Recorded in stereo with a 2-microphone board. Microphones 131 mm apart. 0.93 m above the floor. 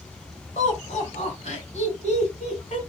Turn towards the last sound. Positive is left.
turn(degrees=70)  # may be behind; listen again after turning